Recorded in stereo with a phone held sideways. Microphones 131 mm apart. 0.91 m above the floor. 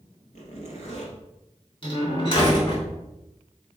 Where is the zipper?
65° left (ahead or behind), 2.5 m.